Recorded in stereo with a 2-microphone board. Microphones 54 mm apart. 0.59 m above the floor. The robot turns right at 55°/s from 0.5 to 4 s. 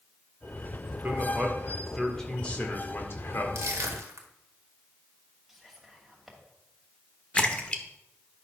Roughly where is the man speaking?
Ahead right.